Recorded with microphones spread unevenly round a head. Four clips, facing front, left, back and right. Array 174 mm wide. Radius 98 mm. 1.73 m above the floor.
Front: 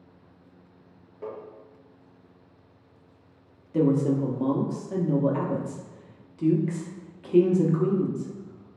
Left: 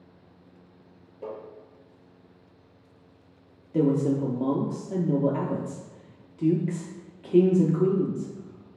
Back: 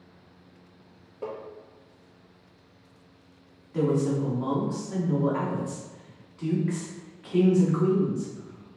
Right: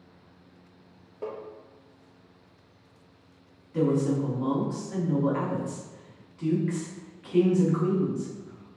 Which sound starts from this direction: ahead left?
A woman speaking, at 3.7 s.